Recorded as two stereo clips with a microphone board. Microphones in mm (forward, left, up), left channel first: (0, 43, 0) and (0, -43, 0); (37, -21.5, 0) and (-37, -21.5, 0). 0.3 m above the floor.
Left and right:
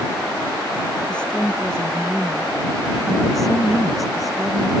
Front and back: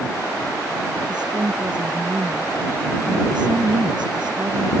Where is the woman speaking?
170° left; by 4.7 s 175° right.